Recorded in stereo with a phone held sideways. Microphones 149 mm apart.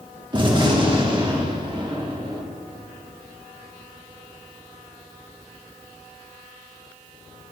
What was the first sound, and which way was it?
A gunshot, 30° right (ahead or behind).